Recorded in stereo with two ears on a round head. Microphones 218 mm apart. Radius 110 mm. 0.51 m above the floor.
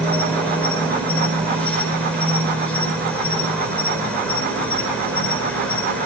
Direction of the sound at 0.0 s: 5° left (ahead or behind).